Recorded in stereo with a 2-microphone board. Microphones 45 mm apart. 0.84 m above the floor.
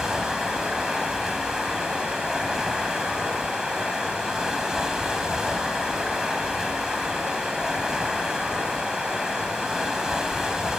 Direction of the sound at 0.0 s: 15° right (ahead or behind).